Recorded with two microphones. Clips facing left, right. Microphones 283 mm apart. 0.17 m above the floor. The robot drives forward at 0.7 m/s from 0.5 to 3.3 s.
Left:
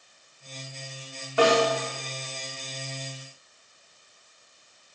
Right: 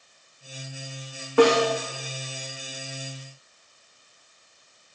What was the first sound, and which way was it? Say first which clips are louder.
A snare drum: right 4 dB; 60° right (ahead or behind).